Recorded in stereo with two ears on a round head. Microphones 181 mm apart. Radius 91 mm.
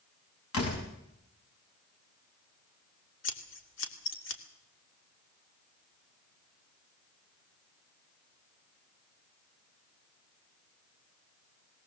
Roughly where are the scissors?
Left.